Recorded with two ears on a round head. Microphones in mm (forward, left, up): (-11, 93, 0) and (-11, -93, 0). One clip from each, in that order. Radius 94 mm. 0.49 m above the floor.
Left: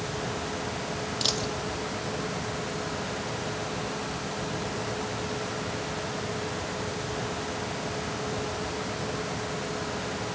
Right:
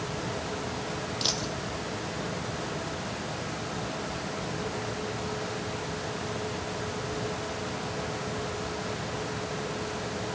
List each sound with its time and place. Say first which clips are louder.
1.2 s a dropped coin: left 2 dB; 10° left (ahead or behind), 0.6 m